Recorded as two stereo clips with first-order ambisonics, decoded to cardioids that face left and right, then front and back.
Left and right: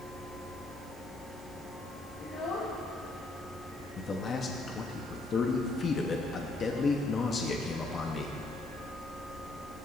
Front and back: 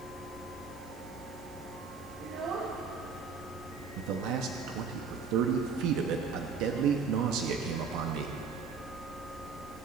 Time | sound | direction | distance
2.2 | a child speaking | 135° left | 0.9 m
4.0 | a man speaking | 155° left | 0.9 m